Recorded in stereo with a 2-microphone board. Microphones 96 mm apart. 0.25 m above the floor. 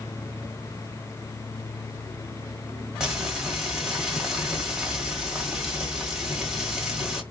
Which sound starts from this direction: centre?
Frying, at 3.0 s.